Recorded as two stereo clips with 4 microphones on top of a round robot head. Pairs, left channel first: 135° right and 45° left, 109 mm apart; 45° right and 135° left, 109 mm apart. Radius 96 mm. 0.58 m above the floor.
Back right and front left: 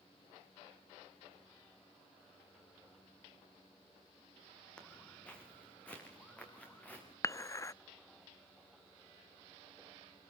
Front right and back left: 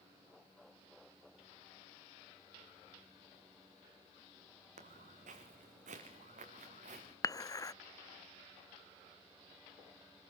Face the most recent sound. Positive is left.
turn(degrees=-85)